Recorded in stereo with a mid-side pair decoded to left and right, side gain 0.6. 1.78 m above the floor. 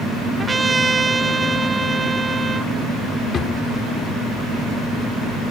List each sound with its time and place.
0.4 s a trumpet: 20° right
3.3 s a drawer: 40° left